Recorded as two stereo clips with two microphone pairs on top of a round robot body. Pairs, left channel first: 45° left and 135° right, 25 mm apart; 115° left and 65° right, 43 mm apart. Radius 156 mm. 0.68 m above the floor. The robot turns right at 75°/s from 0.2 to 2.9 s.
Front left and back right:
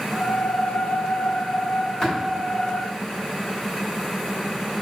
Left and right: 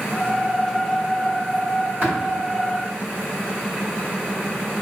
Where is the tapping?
20° right, 1.4 m; by 2.1 s 10° right, 1.4 m.